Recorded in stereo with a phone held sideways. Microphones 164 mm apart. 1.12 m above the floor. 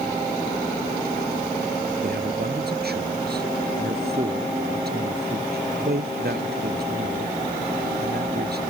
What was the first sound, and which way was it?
A man speaking, 75° right (ahead or behind).